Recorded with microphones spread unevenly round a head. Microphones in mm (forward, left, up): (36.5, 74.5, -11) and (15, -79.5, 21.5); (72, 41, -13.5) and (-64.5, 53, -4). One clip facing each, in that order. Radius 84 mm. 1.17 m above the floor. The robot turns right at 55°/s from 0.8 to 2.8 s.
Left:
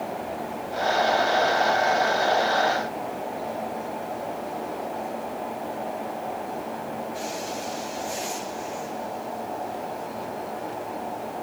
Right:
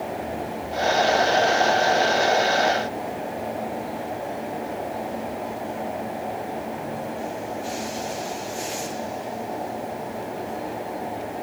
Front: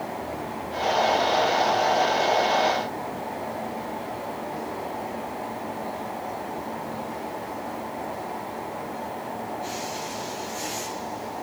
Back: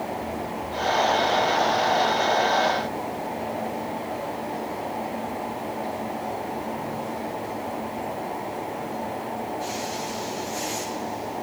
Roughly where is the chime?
I don't hear a chime.